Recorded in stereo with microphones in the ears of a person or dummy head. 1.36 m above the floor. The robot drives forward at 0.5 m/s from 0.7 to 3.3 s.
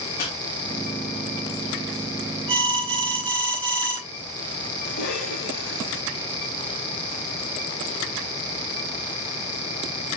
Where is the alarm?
25° right (ahead or behind), 3.5 m.